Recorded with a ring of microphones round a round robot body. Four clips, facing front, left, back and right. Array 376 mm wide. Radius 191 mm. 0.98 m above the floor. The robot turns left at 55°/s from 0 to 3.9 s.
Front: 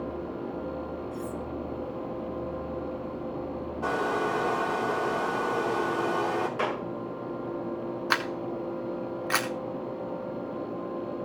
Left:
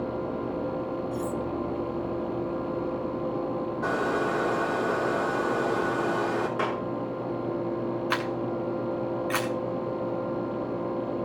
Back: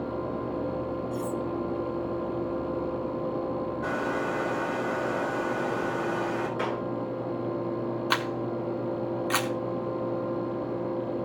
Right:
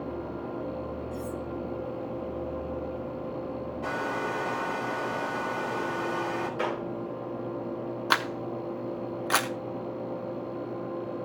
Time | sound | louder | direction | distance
1.1 | cutlery clinking | left 5 dB, back 4 dB | 155° left | 1.0 m
3.8 | a hair dryer | left 4 dB, front 5 dB | 40° left | 3 m
6.6 | a clap | left 2 dB, even | 50° left | 8.5 m
8.1 | a camera shutter | left 1 dB, back 1 dB | 85° right | 1.3 m